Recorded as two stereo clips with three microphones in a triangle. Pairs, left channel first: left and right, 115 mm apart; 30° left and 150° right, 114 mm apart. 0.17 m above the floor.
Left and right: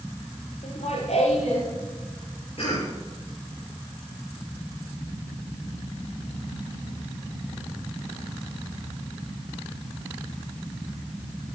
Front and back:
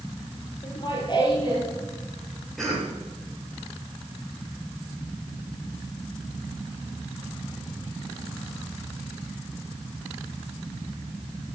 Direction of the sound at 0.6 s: 75° left.